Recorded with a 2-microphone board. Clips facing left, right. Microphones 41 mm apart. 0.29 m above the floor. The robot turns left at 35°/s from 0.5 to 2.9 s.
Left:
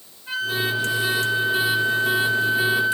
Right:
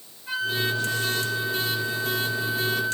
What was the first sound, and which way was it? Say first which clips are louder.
A flute: left 2 dB; 175° left.